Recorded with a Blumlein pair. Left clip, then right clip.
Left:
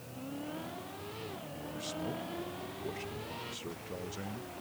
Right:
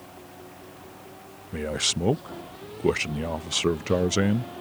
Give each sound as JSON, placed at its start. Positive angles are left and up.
{"t": 1.5, "sound": "a man speaking", "azimuth_deg": -50}